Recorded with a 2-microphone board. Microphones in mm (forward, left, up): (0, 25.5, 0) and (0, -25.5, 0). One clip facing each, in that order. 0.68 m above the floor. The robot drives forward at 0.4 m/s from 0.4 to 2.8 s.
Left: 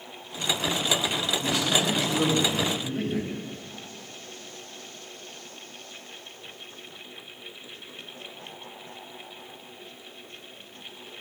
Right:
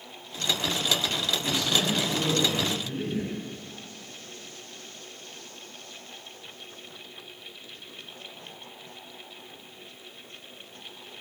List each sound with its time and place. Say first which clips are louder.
1.4 s a man speaking: left 2 dB; 75° left (ahead or behind), 3.5 m; by 3.3 s 80° left, 3 m